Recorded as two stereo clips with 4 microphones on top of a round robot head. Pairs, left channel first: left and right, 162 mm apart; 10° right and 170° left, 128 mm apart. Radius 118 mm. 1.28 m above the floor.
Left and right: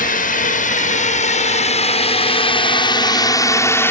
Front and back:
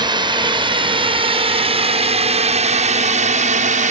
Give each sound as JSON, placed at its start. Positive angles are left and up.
{"t": 0.0, "sound": "a drone", "azimuth_deg": 120}